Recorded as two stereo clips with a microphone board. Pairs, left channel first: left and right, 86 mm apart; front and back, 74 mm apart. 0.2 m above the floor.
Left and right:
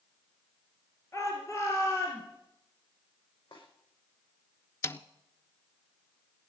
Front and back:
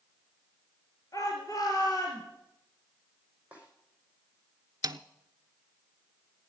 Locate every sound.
1.1 s a shout: 35° left, 4 m
3.5 s a snare drum: 110° left, 5.5 m
4.8 s a snare drum: 145° left, 0.7 m